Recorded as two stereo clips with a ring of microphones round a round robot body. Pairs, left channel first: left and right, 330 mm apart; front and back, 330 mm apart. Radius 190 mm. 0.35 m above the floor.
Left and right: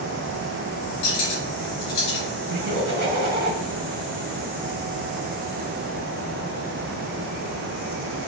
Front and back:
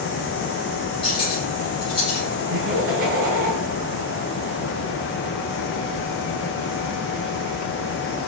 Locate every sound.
1.0 s cutlery clinking: 75° left, 3.5 m
2.5 s laughter: 150° right, 4 m